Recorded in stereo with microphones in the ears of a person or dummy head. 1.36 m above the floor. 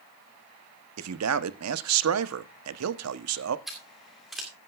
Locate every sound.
1.0 s a man speaking: 85° right, 0.8 m
3.7 s scissors: centre (ahead or behind), 2 m